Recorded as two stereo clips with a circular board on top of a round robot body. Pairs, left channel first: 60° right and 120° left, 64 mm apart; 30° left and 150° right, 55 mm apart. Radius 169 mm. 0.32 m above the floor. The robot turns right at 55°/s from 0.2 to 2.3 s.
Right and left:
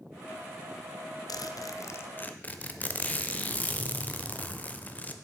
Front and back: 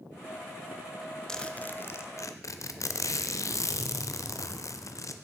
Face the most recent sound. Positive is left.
turn(degrees=5)